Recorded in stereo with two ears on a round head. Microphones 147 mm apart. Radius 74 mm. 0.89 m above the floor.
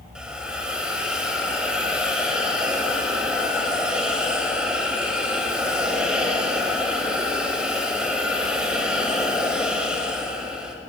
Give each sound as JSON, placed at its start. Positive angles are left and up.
{"t": 0.1, "sound": "a hiss", "side_deg": -5, "distance_m": 0.7}